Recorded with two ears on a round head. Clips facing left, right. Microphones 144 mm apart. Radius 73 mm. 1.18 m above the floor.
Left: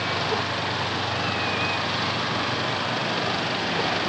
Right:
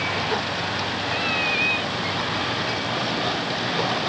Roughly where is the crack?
No crack in this recording.